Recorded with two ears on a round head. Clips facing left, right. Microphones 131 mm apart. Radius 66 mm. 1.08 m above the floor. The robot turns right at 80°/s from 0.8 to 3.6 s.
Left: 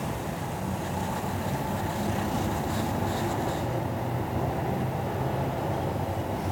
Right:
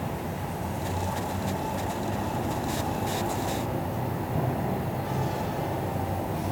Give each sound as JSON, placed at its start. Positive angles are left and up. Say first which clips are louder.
{"t": 0.0, "sound": "an insect", "louder": "even", "azimuth_deg": -15, "distance_m": 2.0}